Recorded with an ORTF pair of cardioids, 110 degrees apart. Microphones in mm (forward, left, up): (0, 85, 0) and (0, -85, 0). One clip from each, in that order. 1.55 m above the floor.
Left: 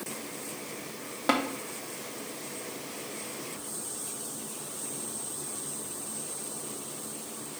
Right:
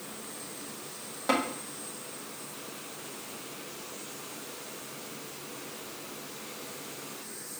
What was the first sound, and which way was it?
Tapping, 25° left.